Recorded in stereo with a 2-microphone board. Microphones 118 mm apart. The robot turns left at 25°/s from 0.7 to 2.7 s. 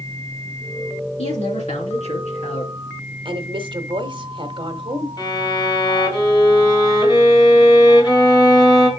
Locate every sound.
1.2 s a man speaking: 110° left, 3 m; by 2.7 s 75° left, 3 m
3.2 s a woman speaking: 45° right (ahead or behind), 1.2 m
5.2 s a violin: 40° left (ahead or behind), 2 m